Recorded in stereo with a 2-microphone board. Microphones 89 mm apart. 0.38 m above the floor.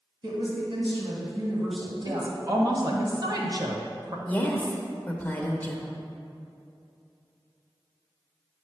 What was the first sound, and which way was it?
A woman speaking, 60° right (ahead or behind).